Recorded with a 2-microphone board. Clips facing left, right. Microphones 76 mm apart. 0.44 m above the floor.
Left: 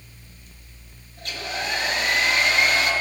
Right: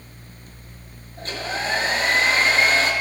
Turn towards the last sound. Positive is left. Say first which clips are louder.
# right 3 dB
turn(degrees=-35)  # may be behind; listen again after turning